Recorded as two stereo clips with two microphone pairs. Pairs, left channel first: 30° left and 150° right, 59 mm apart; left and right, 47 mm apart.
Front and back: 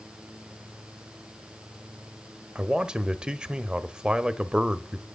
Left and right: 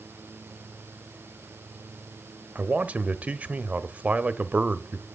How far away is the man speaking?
About 0.9 m.